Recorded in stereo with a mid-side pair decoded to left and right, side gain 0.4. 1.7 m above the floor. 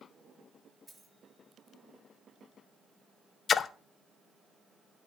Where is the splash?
55° left, 0.6 m.